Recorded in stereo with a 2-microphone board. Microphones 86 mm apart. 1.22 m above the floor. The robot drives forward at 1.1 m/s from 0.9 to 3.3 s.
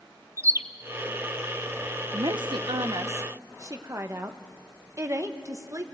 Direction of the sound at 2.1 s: 60° right (ahead or behind).